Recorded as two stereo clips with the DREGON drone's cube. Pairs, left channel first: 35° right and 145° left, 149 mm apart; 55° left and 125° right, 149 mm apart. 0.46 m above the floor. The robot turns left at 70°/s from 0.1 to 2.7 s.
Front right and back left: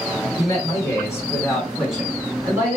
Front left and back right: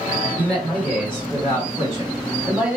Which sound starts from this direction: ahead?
A man speaking, at 0.4 s.